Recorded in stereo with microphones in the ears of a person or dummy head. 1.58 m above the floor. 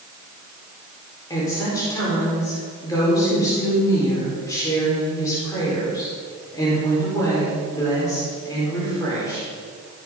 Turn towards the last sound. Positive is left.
turn(degrees=25)  # may be behind; listen again after turning